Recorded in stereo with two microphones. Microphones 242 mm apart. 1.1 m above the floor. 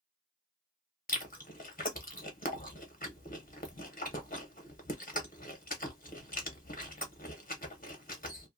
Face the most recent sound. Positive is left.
turn(degrees=35)  # may be behind; listen again after turning